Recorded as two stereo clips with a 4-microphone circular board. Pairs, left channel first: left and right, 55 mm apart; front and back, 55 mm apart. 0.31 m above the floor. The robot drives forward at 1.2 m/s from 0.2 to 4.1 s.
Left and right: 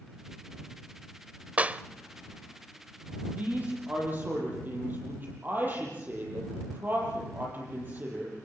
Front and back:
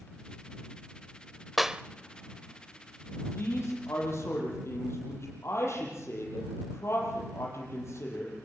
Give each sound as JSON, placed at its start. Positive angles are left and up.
{"t": 1.6, "sound": "a clap", "azimuth_deg": -90, "distance_m": 0.7}
{"t": 3.4, "sound": "a man speaking", "azimuth_deg": -35, "distance_m": 9.5}